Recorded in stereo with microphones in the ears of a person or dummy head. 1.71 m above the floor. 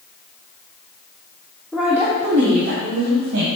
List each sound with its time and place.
1.7 s a woman speaking: 5° right (ahead or behind), 0.8 m; by 3.5 s 70° right (ahead or behind), 1.7 m